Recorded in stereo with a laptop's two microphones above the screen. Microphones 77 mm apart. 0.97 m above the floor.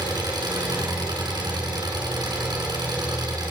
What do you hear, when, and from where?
0.0 s an engine running: 70° right (ahead or behind), 6 m